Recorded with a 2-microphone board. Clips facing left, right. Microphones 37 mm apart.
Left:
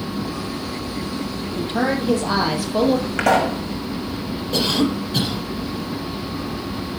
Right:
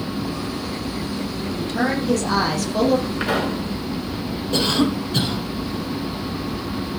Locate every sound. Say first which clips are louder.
1.6 s a woman speaking: left 1 dB; 30° left (ahead or behind), 4.5 m; by 3.1 s 10° left (ahead or behind), 4 m
3.2 s a pop: left 5 dB; 80° left, 7.5 m
4.5 s a cough: even; 5° left (ahead or behind), 4.5 m